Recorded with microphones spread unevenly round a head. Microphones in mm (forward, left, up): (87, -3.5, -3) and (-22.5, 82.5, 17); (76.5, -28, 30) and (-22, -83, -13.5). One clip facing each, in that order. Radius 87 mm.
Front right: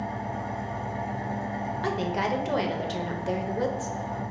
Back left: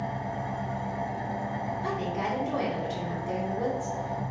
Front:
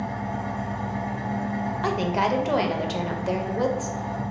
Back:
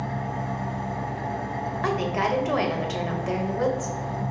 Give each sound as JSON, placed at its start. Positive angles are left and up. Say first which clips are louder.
{"t": 0.0, "sound": "an engine running", "louder": "even, front 1 dB", "azimuth_deg": 40, "distance_m": 1.4}
{"t": 1.8, "sound": "a woman speaking", "louder": "front right 4 dB, front 1 dB", "azimuth_deg": -35, "distance_m": 0.8}